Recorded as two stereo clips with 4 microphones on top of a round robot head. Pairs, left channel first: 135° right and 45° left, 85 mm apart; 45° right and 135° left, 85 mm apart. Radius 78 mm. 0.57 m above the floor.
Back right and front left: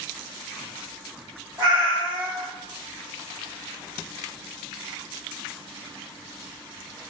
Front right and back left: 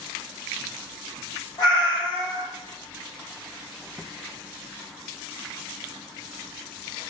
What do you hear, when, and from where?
1.6 s a cat meowing: 5° left, 1.8 m